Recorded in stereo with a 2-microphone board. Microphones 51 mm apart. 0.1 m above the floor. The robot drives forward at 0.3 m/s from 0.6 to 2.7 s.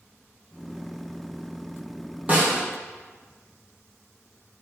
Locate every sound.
2.3 s a snare drum: 30° right (ahead or behind), 1.7 m